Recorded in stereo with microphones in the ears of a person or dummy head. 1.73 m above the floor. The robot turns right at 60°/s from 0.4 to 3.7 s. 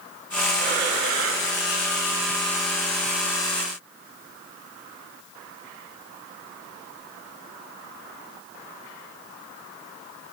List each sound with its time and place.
0.6 s breathing: 140° right, 4 m; by 1.5 s 85° right, 4 m